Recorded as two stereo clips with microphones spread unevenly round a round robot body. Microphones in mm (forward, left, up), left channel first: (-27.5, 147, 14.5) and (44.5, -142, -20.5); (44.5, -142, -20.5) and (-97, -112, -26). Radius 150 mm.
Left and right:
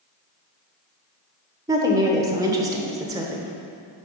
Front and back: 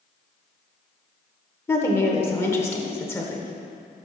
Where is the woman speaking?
50° right, 1.0 m.